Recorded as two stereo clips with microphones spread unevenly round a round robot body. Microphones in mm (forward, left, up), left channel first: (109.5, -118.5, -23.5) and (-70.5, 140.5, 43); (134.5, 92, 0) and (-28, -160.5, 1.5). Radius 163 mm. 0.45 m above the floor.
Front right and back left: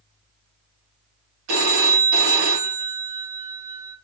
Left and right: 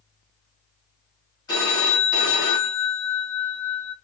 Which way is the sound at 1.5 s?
135° left.